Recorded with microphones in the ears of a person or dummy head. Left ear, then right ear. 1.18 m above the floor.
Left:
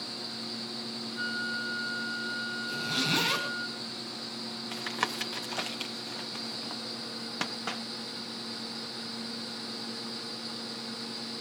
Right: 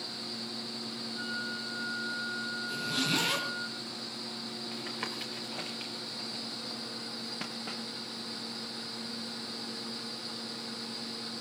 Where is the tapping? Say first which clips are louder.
Left 7 dB; 45° left (ahead or behind), 1.3 m.